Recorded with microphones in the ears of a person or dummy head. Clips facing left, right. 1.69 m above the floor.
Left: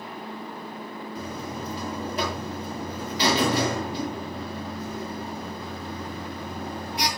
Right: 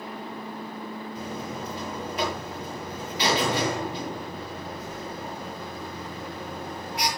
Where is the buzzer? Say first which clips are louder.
Left 1 dB; 40° left (ahead or behind), 8 m.